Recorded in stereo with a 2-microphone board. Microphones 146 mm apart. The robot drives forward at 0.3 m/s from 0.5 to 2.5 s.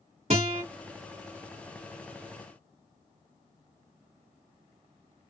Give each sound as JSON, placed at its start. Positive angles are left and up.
{"t": 0.3, "sound": "a guitar", "side_deg": -50, "distance_m": 1.7}